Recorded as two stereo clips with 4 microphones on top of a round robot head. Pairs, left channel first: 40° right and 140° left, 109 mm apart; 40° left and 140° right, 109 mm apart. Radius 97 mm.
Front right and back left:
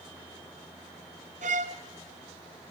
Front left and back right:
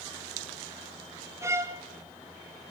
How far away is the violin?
About 0.7 m.